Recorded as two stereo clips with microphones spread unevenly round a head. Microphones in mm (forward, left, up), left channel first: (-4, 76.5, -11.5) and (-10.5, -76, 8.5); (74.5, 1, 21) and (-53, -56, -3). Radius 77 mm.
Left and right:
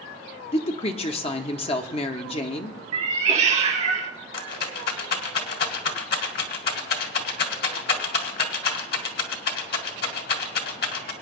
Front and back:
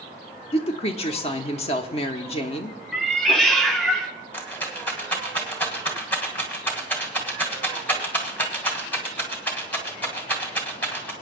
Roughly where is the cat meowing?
Ahead right.